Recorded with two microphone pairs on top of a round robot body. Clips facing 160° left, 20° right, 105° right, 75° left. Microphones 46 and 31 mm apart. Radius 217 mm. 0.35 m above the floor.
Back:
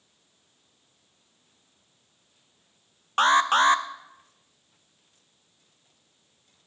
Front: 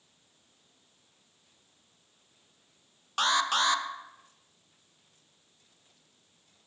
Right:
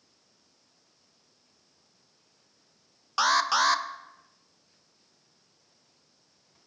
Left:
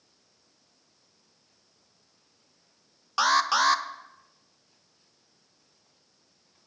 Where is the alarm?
150° left, 0.7 m.